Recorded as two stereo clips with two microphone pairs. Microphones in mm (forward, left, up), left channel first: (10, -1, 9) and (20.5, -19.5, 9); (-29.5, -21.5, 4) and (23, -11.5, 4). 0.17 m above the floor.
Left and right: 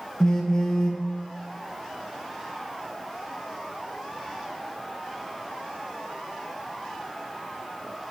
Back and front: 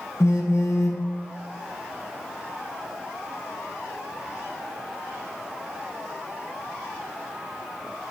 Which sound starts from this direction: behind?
A phone buzzing, at 0.2 s.